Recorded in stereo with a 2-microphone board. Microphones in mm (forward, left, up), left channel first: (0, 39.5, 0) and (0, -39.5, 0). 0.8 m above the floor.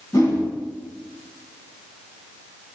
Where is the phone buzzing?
No phone buzzing in this recording.